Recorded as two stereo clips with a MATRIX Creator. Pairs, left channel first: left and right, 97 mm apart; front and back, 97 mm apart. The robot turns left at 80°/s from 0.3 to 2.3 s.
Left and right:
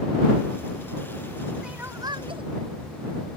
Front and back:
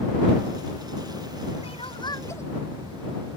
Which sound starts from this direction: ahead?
Crying, at 1.6 s.